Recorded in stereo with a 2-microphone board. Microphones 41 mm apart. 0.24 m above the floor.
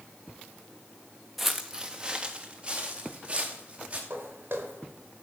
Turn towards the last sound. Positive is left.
turn(degrees=-60)  # may be behind; listen again after turning